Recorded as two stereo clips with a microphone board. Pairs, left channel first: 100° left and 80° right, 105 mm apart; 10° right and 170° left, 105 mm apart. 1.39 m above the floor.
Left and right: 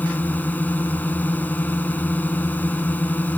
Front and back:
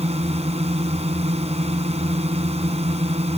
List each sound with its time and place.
0.0 s a drone: 175° left